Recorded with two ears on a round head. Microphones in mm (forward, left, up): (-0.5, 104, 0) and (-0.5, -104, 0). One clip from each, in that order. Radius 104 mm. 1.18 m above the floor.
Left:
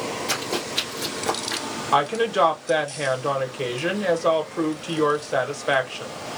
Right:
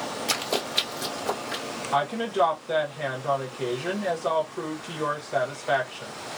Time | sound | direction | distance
0.3 | running footsteps | 25° right (ahead or behind) | 1.5 m
1.9 | a woman speaking | 35° left (ahead or behind) | 1.1 m